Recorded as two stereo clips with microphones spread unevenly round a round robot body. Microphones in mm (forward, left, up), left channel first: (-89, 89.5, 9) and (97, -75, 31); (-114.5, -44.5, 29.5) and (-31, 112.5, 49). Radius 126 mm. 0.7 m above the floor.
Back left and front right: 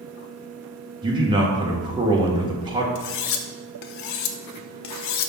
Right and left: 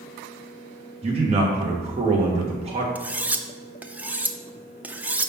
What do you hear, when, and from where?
1.0 s a man speaking: 25° left, 1.1 m
3.0 s cutlery clinking: 145° left, 0.6 m